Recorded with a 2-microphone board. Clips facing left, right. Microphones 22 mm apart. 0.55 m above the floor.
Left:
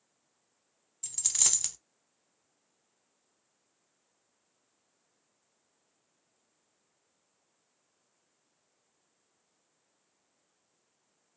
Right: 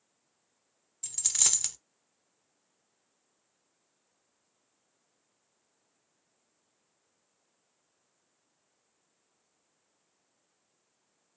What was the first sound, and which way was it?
A dropped coin, 10° right (ahead or behind).